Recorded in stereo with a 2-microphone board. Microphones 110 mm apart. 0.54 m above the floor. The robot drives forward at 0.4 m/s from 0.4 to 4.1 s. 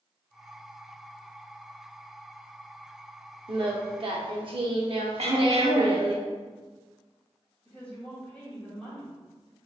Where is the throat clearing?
70° right (ahead or behind), 0.7 m.